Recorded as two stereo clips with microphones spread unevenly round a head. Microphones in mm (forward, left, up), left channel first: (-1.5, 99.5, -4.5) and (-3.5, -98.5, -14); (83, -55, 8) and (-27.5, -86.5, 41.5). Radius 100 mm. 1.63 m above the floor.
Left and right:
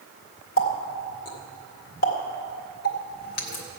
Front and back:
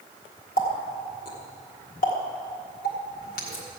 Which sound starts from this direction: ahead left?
A running tap, at 0.6 s.